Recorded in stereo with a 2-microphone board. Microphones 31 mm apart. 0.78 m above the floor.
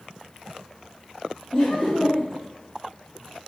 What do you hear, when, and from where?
1.5 s laughter: 50° left (ahead or behind), 1.3 m